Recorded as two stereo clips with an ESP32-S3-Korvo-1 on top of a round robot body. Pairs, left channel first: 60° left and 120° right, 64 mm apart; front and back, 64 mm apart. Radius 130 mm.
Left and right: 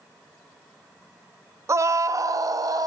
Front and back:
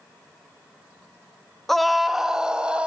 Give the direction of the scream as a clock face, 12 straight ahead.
3 o'clock.